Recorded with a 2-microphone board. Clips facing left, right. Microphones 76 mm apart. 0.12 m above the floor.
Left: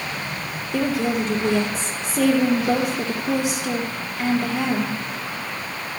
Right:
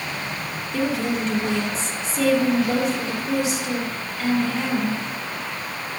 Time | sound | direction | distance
0.7 | a woman speaking | 60° left (ahead or behind) | 3 m